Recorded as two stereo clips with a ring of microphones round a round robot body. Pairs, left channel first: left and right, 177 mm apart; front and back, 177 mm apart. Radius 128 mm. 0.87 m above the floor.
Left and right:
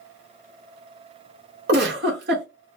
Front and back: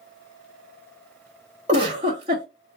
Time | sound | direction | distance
1.7 | a giggle | 110° right | 1.7 m